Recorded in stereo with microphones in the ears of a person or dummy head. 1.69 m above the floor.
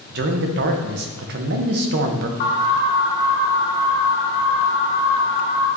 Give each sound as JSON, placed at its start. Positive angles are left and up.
{"t": 0.1, "sound": "a man speaking", "side_deg": -55, "distance_m": 0.9}
{"t": 2.4, "sound": "an alarm", "side_deg": 45, "distance_m": 1.7}